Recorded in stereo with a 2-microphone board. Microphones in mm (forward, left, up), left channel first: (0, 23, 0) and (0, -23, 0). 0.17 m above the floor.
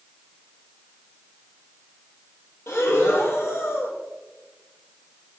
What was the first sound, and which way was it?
Breathing, 70° left (ahead or behind).